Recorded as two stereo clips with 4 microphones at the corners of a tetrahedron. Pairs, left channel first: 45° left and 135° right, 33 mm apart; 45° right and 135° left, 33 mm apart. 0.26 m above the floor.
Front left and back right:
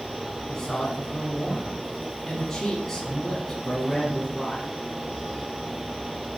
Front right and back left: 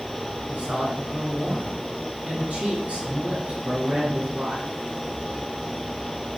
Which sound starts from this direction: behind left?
A man speaking, at 0.5 s.